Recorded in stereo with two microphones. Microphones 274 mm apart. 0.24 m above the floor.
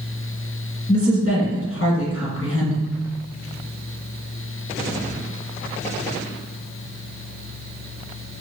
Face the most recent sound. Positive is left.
turn(degrees=55)  # may be behind; listen again after turning